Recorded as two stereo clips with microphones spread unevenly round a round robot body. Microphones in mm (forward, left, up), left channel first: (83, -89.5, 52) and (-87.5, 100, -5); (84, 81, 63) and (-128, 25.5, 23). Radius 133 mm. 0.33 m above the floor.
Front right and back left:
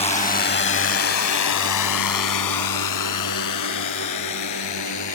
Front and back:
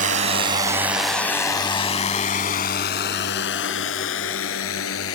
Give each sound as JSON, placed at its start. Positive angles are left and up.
{"t": 0.0, "sound": "a drone", "azimuth_deg": -120}